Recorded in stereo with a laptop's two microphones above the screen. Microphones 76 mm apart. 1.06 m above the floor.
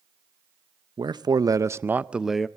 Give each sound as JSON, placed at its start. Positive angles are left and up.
{"t": 1.0, "sound": "a man speaking", "side_deg": -75, "distance_m": 0.7}